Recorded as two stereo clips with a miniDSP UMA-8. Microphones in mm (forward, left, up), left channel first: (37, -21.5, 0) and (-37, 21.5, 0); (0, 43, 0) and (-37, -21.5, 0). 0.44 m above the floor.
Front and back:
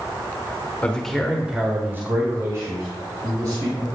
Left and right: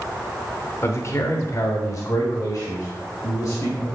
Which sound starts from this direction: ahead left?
A man speaking, at 0.8 s.